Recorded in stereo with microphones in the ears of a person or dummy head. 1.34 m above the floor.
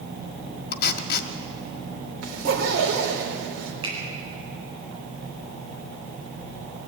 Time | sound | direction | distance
0.7 | tape being pulled | 60° left (ahead or behind) | 1.6 m
2.2 | a zipper | 75° right (ahead or behind) | 4 m
3.8 | a finger snap | 35° right (ahead or behind) | 8.5 m